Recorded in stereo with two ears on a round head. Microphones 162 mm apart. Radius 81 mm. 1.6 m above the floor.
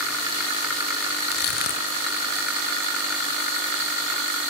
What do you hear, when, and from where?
1.3 s crushing: 55° left (ahead or behind), 2.5 m